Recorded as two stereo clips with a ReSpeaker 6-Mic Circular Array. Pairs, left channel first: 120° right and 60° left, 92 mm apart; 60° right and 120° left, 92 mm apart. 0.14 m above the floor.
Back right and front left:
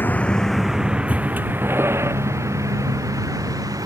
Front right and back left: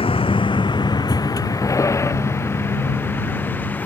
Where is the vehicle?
50° right; by 3.9 s 10° left.